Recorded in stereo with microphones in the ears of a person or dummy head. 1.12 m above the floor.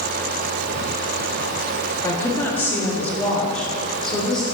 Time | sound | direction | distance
2.0 | a woman speaking | 20° left (ahead or behind) | 1.8 m